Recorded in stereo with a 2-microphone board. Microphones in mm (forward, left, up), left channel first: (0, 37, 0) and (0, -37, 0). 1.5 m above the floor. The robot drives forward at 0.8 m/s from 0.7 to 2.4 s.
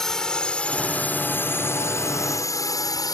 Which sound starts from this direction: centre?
A drone, at 0.0 s.